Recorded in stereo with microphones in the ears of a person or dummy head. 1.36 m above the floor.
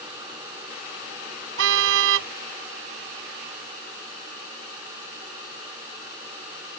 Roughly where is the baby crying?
I don't hear a baby crying.